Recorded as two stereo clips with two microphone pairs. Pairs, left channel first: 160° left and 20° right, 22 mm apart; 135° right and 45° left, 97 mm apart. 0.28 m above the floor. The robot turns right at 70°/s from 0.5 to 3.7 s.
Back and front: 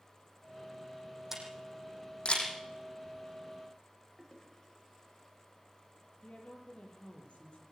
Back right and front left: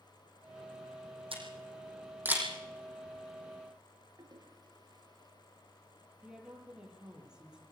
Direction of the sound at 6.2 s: 125° left.